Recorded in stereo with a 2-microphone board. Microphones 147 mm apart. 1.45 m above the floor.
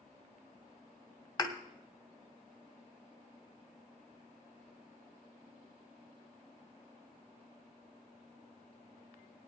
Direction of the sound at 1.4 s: 30° left (ahead or behind).